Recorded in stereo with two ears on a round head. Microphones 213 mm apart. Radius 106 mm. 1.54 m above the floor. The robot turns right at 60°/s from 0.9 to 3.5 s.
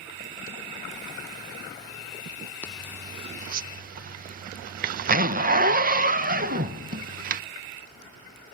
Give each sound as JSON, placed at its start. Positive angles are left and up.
{"t": 2.6, "sound": "a zipper", "side_deg": 5, "distance_m": 0.9}